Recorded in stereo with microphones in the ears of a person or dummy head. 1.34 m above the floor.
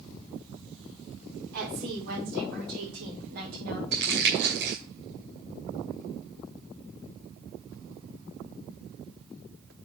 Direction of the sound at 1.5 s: 55° right (ahead or behind).